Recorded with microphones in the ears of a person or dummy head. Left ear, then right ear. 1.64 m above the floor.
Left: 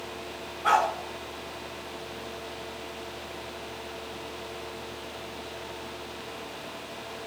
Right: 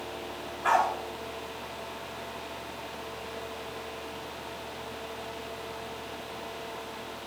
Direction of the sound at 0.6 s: 35° right (ahead or behind).